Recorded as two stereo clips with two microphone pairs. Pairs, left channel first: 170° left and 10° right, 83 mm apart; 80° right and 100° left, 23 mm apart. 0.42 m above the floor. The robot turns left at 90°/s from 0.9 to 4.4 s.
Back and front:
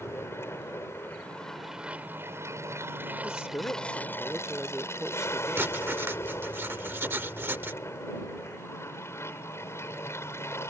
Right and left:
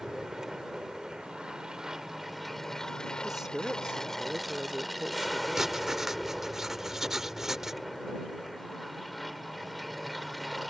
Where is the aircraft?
145° left; by 10.7 s 170° right.